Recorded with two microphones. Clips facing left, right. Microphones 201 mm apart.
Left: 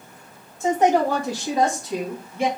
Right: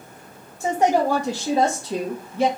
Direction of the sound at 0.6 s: 5° right (ahead or behind).